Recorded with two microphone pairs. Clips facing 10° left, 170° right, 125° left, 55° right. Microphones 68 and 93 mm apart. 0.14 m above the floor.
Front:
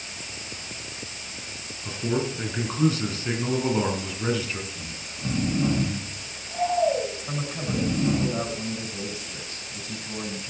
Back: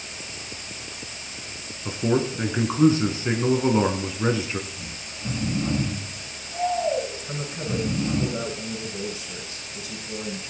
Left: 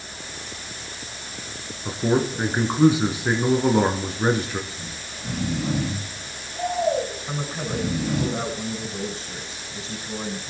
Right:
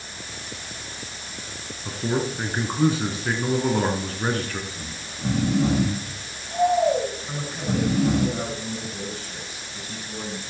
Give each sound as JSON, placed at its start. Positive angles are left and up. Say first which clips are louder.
{"t": 1.9, "sound": "a man speaking", "louder": "back 4 dB, left 4 dB", "azimuth_deg": 170, "distance_m": 1.6}
{"t": 4.7, "sound": "snoring", "louder": "even, even", "azimuth_deg": -50, "distance_m": 7.5}
{"t": 7.3, "sound": "a man speaking", "louder": "even, even", "azimuth_deg": 60, "distance_m": 6.0}